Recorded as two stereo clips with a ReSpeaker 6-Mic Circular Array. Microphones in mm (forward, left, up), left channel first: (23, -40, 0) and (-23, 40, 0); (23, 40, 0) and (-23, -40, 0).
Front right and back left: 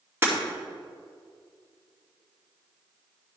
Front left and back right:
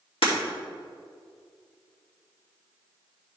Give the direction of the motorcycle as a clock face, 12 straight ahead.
I don't hear a motorcycle.